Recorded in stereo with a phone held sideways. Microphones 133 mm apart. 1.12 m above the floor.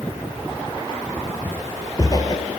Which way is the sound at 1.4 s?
15° left (ahead or behind).